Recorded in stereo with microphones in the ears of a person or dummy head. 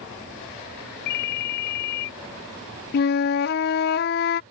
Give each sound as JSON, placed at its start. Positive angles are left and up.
{"t": 1.1, "sound": "a ringtone", "side_deg": 50}
{"t": 2.9, "sound": "a flute", "side_deg": 50}